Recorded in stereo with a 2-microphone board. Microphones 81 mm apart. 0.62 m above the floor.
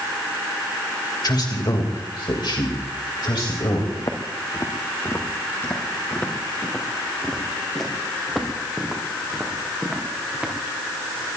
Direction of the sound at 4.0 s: 45° left (ahead or behind).